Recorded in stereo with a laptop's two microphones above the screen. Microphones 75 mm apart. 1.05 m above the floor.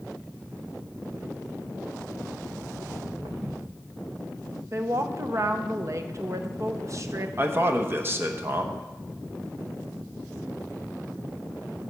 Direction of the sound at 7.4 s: 30° right (ahead or behind).